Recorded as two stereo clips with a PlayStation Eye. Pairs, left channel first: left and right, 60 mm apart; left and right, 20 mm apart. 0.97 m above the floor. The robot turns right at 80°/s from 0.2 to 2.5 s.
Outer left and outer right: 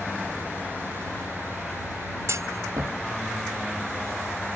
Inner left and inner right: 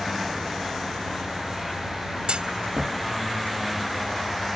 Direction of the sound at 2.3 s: 55° right (ahead or behind).